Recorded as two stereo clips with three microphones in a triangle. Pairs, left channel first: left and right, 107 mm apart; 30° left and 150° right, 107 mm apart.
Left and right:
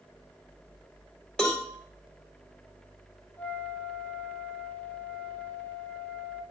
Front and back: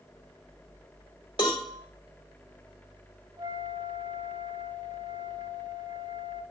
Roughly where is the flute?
Behind.